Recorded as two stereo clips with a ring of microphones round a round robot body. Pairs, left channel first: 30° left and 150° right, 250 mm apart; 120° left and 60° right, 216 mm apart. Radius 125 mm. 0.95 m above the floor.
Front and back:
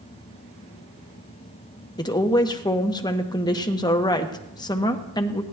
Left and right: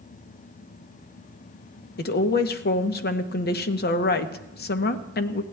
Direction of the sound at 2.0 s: 100° left.